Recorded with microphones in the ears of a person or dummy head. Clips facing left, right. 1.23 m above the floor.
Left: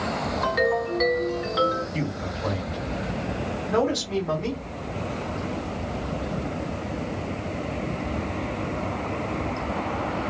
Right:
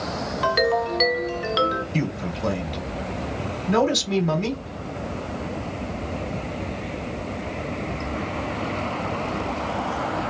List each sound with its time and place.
0.4 s a ringtone: 45° right (ahead or behind), 1.1 m
1.9 s a man speaking: 40° right (ahead or behind), 1.0 m